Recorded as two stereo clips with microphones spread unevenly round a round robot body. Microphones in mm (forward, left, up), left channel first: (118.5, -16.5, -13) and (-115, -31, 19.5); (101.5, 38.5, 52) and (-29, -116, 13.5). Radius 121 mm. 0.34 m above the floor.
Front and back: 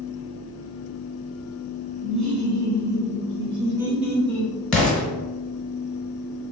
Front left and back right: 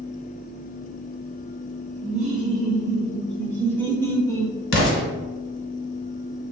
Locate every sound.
2.0 s laughter: 155° left, 1.6 m; by 4.5 s 30° right, 1.1 m
4.7 s an explosion: 85° left, 1.1 m